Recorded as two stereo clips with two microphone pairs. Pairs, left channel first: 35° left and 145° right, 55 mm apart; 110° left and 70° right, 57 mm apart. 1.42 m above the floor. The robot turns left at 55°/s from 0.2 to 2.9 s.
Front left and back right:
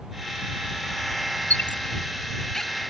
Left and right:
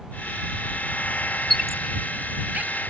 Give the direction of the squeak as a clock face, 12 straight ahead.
11 o'clock.